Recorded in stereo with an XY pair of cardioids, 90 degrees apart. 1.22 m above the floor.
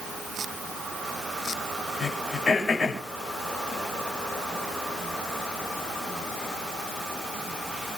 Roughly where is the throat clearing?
Ahead left.